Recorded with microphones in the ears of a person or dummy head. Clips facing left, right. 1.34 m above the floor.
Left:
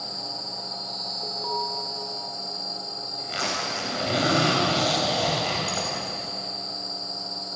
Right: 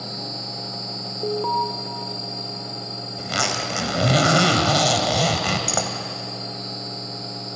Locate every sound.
1.2 s an alarm: 55° right (ahead or behind), 1.4 m
3.2 s a zipper: 65° right (ahead or behind), 3 m